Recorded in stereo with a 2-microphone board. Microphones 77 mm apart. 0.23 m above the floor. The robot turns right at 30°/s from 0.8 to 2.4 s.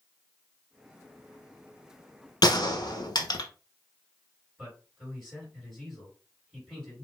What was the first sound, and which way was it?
A gunshot, 60° left (ahead or behind).